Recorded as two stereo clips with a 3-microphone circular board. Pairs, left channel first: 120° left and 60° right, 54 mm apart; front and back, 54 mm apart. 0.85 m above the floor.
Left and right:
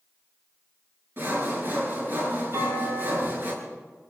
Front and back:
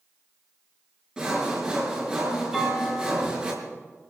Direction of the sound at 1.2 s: 105° right.